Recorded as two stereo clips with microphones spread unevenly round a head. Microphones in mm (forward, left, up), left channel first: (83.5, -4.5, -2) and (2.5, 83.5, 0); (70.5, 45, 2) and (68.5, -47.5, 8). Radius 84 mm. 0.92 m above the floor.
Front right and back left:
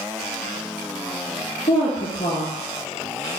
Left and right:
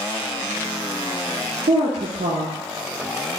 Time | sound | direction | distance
1.7 | a woman speaking | 105° right | 0.5 m